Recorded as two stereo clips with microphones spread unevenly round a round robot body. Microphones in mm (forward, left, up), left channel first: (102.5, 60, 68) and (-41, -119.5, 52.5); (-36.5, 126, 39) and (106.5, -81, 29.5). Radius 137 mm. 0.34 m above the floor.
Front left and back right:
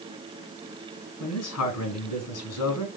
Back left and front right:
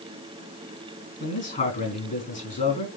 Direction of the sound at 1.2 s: 65° left.